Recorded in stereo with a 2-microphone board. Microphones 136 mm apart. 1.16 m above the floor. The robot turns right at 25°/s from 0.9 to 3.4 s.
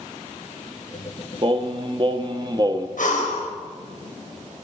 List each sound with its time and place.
1.4 s singing: 85° right, 0.6 m; by 2.9 s 50° right, 0.6 m
3.0 s breathing: 70° left (ahead or behind), 1.4 m; by 3.5 s 60° left (ahead or behind), 1.4 m